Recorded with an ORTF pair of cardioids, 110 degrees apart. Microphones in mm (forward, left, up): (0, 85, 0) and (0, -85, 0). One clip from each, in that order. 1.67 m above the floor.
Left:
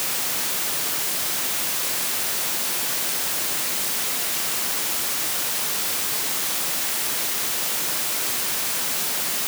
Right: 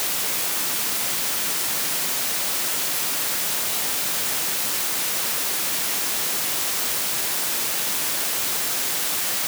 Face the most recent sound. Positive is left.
No sound to turn to.